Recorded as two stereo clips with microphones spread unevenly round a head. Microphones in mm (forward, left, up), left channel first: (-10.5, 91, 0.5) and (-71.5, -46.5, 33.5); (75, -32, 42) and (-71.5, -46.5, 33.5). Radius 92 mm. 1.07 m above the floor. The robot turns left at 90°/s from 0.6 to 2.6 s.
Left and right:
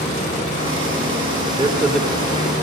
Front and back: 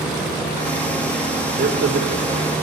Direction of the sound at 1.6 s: 170° right.